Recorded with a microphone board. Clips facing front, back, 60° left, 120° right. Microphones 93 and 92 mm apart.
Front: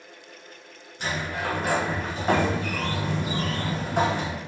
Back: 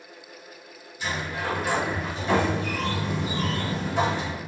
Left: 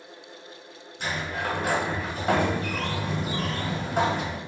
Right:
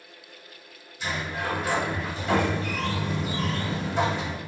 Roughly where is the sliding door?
Ahead left.